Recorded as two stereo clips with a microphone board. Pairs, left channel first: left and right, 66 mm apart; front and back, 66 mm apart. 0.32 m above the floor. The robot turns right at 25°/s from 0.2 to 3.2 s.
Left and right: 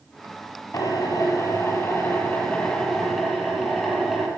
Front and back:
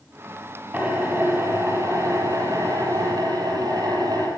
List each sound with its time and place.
0.7 s a drill: 115° left, 8.5 m; by 4.3 s 175° left, 8.5 m